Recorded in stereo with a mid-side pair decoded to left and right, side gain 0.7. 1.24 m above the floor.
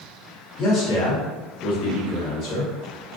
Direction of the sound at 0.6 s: 45° left.